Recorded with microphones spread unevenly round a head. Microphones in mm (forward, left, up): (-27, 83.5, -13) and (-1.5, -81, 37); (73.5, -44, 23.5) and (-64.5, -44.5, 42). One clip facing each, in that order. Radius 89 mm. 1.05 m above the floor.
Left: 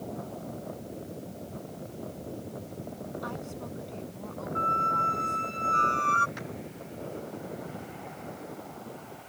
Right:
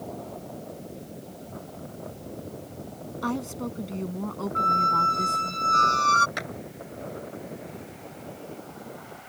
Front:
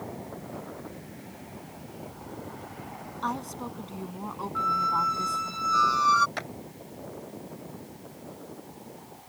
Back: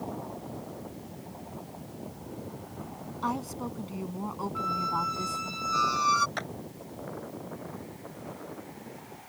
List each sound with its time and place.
3.2 s a woman speaking: 100° right
4.5 s a squeak: 110° right
6.4 s a clap: 85° right